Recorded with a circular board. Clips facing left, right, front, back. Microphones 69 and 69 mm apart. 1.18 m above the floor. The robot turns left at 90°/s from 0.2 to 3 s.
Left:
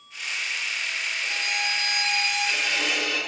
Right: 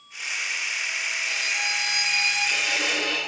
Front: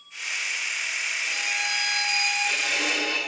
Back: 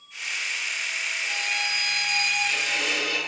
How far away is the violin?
About 3.5 m.